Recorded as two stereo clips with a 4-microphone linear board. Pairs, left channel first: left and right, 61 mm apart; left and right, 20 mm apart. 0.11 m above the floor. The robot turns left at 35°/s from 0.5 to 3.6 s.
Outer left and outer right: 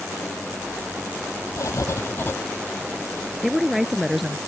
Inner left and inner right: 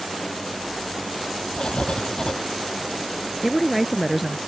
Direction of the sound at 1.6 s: 60° left (ahead or behind).